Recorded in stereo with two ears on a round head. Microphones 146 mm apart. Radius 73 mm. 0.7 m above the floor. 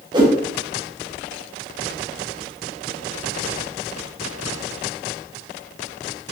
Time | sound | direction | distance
0.1 | a whoosh | 25° right (ahead or behind) | 0.7 m